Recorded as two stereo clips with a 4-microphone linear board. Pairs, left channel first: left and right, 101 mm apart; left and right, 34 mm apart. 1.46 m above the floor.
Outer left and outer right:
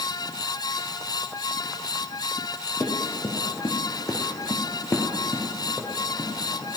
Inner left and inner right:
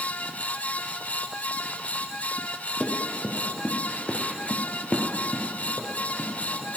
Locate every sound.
2.8 s running footsteps: 25° left (ahead or behind), 2.5 m; by 6.8 s 15° left (ahead or behind), 4 m